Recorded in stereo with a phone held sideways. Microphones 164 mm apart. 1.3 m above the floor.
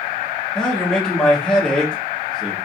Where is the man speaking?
5° left (ahead or behind), 1.7 m.